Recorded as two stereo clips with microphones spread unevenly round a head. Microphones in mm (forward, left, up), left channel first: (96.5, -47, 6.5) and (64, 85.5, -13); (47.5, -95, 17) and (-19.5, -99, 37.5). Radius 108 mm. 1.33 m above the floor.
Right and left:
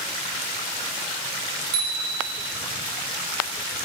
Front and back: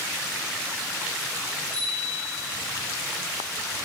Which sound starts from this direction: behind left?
A bicycle bell, at 1.7 s.